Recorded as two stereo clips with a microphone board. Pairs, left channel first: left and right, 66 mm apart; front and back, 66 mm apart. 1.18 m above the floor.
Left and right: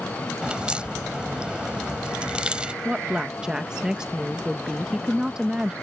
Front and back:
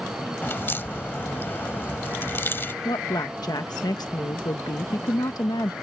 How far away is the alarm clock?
I don't hear an alarm clock.